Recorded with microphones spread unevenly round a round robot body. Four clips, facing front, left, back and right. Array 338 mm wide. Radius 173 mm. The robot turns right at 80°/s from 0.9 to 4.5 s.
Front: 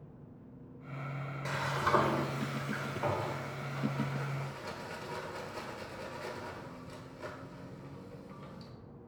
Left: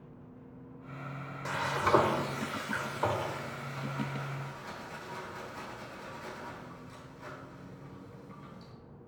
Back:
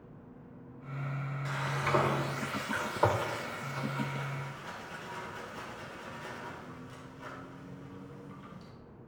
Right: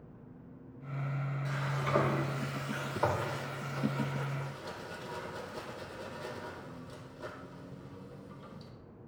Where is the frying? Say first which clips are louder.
Left 8 dB, front 2 dB; 55° left, 1.2 m; by 8.7 s 60° right, 1.2 m.